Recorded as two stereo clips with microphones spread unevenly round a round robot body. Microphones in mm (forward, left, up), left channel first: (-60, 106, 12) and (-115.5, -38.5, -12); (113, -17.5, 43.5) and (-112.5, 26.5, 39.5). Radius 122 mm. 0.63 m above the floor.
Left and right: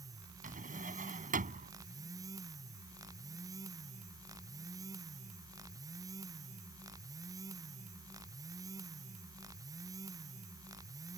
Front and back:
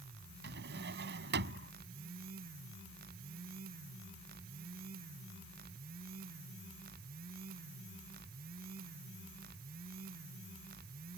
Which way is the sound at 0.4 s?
145° right.